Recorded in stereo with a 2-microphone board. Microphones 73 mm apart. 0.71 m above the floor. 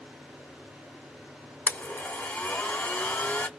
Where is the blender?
25° left (ahead or behind), 0.9 m.